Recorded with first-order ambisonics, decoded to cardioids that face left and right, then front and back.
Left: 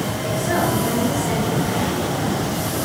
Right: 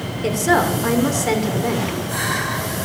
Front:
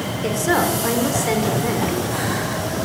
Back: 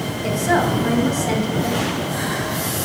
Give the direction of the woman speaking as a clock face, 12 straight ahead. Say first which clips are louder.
Right 5 dB, even; 2 o'clock.